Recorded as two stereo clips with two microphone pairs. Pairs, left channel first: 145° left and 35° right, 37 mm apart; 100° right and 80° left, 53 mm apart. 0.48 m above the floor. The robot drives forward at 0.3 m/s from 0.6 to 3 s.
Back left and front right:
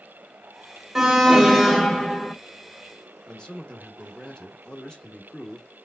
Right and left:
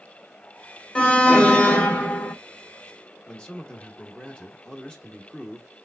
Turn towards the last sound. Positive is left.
turn(degrees=-155)